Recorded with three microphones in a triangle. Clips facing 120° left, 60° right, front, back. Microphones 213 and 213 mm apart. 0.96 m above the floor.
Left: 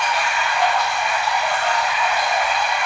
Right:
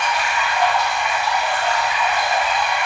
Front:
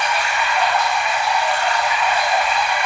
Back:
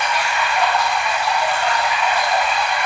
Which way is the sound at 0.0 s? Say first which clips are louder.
Even, even; 130° right.